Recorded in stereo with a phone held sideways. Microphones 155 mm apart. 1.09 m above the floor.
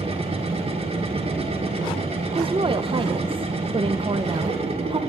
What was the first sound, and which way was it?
A machine running, 40° right (ahead or behind).